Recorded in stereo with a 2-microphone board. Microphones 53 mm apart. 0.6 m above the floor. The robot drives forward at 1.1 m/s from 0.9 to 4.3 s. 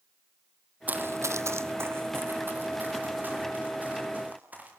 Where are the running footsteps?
30° right (ahead or behind), 1.1 m.